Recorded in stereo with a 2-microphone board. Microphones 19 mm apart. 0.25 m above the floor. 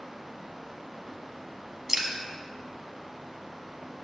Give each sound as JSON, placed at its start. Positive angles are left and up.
{"t": 1.9, "sound": "dripping", "side_deg": -20, "distance_m": 0.8}